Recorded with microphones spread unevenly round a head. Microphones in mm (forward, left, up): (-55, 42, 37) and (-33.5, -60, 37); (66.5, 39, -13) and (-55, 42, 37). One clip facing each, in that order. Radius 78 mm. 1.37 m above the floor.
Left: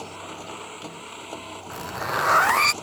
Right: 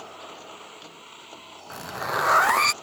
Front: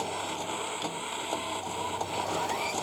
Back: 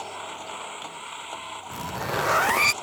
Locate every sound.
0.0 s a machine running: 45° left
1.7 s a zipper: 165° right